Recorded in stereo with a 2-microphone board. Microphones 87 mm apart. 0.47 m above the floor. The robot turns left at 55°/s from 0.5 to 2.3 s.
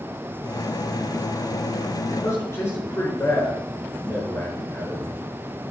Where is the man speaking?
20° left (ahead or behind), 5.5 m; by 5.1 s 30° left (ahead or behind), 5.5 m.